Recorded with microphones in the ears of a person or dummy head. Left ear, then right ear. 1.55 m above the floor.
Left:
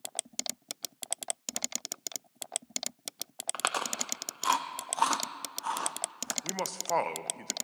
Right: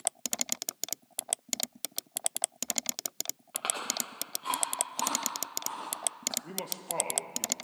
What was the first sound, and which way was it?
Chewing, 55° left (ahead or behind).